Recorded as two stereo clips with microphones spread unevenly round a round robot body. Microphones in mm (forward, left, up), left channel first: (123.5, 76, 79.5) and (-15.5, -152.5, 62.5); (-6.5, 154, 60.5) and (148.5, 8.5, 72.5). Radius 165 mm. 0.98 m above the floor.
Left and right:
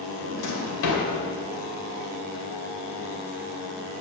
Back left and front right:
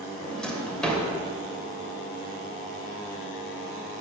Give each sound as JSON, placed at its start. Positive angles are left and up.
{"t": 0.2, "sound": "a drawer", "azimuth_deg": 50, "distance_m": 2.5}